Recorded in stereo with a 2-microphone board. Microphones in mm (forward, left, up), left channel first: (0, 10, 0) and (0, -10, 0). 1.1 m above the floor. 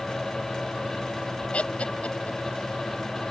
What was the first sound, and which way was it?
Laughter, 80° left.